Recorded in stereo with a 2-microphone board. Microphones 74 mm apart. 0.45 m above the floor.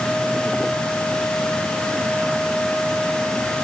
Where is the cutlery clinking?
No cutlery clinking in this recording.